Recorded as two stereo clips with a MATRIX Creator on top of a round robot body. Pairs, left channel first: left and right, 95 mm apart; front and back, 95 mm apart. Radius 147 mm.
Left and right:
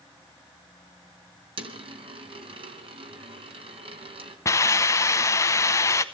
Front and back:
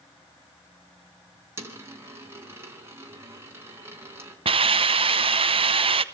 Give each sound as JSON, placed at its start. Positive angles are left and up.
{"t": 1.6, "sound": "a dropped coin", "azimuth_deg": -115, "distance_m": 3.0}
{"t": 4.5, "sound": "a hiss", "azimuth_deg": 150, "distance_m": 0.8}